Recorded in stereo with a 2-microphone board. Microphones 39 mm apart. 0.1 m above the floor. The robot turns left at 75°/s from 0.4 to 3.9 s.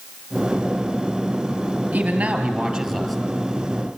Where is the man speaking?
105° right, 2.5 m; by 3.2 s 165° left, 2.5 m.